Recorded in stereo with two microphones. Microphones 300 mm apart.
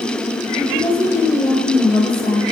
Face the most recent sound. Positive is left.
turn(degrees=5)  # may be behind; listen again after turning